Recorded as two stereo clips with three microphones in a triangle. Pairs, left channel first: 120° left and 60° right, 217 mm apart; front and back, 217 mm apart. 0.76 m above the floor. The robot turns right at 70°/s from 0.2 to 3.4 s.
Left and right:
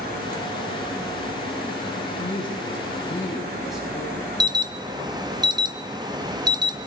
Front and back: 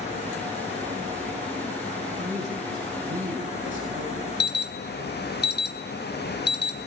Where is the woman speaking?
125° left, 6.5 m; by 4.3 s 150° right, 6.5 m.